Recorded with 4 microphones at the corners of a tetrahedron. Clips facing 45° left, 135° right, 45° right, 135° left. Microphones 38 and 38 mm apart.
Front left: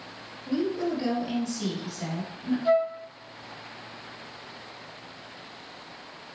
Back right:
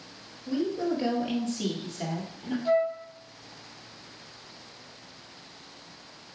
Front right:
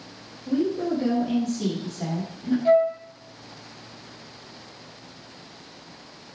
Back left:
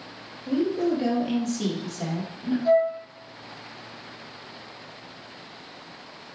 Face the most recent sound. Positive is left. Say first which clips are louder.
# front left 1 dB, front right 2 dB
turn(degrees=-5)